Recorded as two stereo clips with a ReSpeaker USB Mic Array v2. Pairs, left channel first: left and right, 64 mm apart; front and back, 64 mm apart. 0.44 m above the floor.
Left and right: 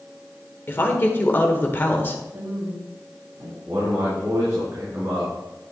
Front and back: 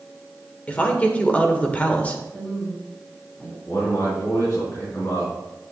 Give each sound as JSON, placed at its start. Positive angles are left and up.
{"t": 0.7, "sound": "a woman speaking", "azimuth_deg": 55, "distance_m": 1.4}
{"t": 2.3, "sound": "a woman speaking", "azimuth_deg": -80, "distance_m": 4.0}
{"t": 3.7, "sound": "a man speaking", "azimuth_deg": -45, "distance_m": 3.5}